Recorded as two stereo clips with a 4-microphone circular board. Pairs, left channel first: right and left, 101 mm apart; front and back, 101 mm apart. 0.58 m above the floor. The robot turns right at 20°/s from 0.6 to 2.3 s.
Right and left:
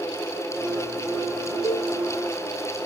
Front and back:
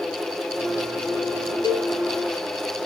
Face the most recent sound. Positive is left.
turn(degrees=-25)